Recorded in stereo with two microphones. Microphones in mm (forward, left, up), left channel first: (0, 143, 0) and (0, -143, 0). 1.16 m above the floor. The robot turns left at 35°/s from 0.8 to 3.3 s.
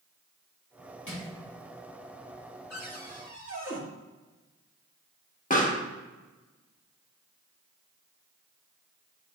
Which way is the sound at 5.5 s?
30° left (ahead or behind).